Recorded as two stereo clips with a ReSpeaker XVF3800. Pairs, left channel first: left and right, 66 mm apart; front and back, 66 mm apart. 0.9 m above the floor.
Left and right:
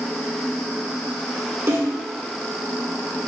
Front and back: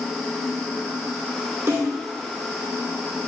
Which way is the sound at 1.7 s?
135° right.